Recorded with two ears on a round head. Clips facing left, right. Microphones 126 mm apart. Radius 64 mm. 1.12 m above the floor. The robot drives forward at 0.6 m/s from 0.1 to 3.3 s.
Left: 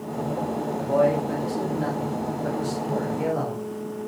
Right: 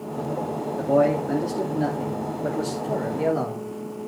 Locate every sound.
0.8 s a man speaking: 60° right (ahead or behind), 2.5 m; by 3.7 s 40° right (ahead or behind), 3.5 m